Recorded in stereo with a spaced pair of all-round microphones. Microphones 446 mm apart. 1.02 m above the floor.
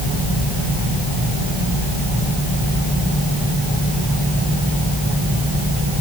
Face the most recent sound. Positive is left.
No sound to turn to.